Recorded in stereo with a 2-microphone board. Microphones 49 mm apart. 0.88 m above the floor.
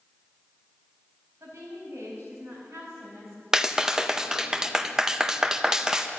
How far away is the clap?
About 0.6 m.